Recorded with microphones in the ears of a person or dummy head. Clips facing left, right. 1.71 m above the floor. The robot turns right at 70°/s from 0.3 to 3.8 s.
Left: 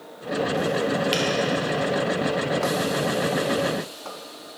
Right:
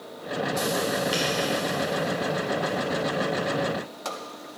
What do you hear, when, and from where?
1.1 s a finger snap: 30° left (ahead or behind), 1.2 m; by 1.2 s 35° left (ahead or behind), 1.2 m